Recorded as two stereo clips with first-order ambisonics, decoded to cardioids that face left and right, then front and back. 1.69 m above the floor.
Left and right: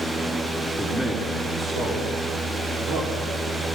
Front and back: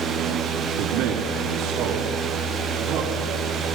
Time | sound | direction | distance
0.8 | a man speaking | 170° right | 3 m